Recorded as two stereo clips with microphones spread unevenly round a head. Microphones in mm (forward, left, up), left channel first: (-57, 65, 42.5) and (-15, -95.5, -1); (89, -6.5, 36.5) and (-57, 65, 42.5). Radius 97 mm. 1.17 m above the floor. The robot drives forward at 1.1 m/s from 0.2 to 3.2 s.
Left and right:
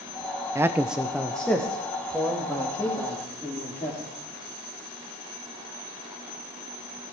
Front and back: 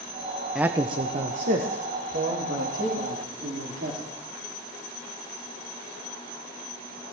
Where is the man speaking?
115° right, 0.6 m; by 4.0 s 175° right, 3 m.